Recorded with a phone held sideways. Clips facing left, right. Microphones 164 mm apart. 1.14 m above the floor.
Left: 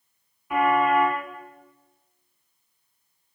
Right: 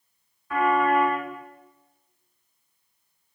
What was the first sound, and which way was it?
A car horn, 15° left (ahead or behind).